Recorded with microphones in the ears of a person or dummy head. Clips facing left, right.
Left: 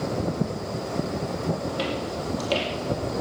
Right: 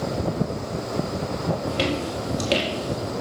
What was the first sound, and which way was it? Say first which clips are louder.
Footsteps: right 3 dB; 30° right (ahead or behind).